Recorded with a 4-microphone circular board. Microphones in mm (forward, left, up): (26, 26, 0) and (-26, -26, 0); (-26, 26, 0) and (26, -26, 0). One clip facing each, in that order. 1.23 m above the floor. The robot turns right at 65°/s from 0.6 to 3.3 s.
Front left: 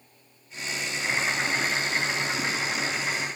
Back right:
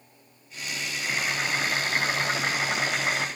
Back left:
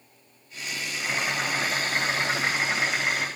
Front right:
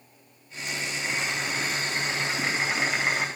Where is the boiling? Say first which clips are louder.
Front left 2 dB, back left 3 dB; 100° left, 1.8 m; by 3.3 s 110° right, 1.8 m.